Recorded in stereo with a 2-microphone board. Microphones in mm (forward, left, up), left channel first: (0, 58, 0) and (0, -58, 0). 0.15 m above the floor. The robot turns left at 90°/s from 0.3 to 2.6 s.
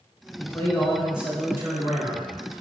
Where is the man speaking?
25° left (ahead or behind), 1.1 m; by 2.3 s 25° right (ahead or behind), 1.1 m.